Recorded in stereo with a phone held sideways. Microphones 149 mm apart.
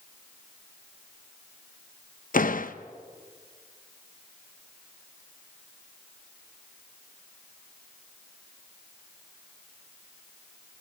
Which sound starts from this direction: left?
A door slam, at 2.3 s.